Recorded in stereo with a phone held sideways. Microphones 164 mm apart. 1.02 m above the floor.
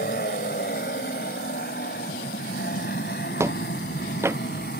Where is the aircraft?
70° left (ahead or behind); by 4.8 s 80° left.